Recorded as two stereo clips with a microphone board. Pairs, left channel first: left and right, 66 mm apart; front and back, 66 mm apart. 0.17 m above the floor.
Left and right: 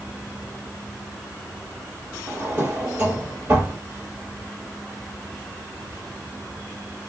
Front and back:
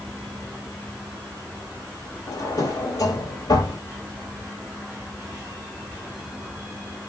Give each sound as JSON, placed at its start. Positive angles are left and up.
{"t": 2.3, "sound": "a drawer", "azimuth_deg": -25, "distance_m": 3.0}